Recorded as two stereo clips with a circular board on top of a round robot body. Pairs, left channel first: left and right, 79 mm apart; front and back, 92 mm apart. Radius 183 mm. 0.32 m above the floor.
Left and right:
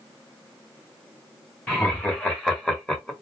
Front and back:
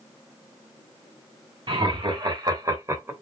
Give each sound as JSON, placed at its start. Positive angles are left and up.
{"t": 1.7, "sound": "laughter", "azimuth_deg": 165, "distance_m": 2.5}